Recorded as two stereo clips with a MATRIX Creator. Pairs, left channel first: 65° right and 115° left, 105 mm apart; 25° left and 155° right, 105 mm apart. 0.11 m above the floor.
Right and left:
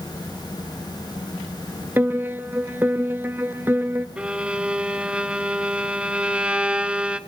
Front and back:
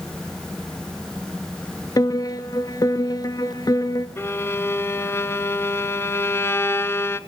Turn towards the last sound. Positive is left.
turn(degrees=45)